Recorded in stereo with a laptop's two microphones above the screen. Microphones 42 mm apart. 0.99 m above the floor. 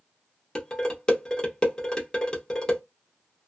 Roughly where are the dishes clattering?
Left.